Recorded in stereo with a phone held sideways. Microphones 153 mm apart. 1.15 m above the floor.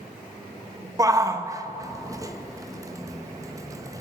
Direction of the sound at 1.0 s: 20° right (ahead or behind).